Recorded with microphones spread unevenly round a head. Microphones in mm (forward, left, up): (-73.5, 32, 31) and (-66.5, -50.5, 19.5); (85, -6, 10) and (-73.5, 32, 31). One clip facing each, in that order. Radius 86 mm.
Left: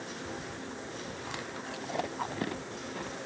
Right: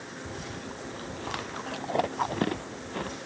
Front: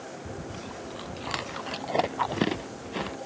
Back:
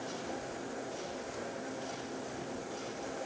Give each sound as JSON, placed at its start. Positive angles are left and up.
{"t": 0.2, "sound": "chewing", "azimuth_deg": -20}